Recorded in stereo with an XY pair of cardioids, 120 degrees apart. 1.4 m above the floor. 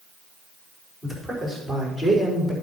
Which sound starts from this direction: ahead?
A man speaking, at 1.0 s.